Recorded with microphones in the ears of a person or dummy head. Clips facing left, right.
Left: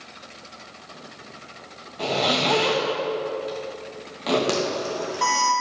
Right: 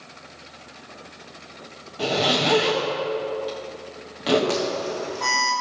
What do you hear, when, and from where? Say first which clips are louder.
2.0 s a zipper: right 1 dB; 10° right (ahead or behind), 1.3 m
4.5 s an alarm: even; 60° left (ahead or behind), 3 m